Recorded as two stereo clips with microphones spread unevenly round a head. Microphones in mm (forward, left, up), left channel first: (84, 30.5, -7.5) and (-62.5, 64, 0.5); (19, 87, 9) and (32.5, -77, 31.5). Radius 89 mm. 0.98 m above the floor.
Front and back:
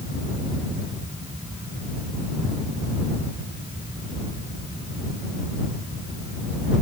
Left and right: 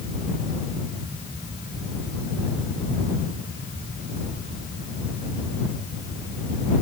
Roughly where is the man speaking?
No man speaking in this recording.